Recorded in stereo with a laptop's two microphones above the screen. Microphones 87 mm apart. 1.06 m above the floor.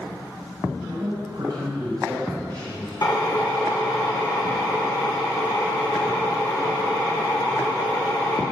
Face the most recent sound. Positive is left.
turn(degrees=45)  # may be behind; listen again after turning